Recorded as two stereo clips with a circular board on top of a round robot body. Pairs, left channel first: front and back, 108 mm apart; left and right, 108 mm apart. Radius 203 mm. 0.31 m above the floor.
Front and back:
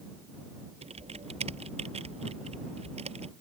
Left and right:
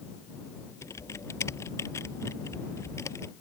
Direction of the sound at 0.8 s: 155° left.